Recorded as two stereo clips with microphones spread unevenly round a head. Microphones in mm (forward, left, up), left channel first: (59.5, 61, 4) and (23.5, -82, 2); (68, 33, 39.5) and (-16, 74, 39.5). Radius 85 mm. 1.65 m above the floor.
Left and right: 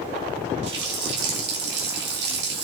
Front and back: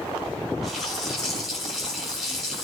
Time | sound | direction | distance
0.6 | a running tap | 120° right | 3 m